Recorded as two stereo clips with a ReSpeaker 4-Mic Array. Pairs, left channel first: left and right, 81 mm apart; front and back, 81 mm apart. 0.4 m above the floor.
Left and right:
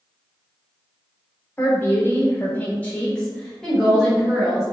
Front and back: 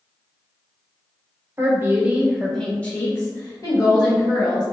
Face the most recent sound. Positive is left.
turn(degrees=-5)